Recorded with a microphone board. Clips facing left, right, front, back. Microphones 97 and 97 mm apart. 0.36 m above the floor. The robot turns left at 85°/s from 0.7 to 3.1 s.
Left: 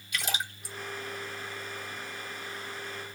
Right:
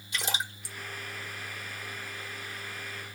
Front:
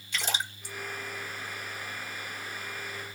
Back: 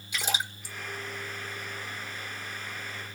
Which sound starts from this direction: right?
A splash, at 0.1 s.